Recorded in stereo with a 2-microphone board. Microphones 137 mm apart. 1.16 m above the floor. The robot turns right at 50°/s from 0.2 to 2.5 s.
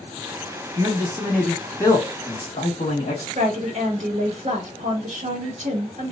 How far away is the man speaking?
About 1.7 m.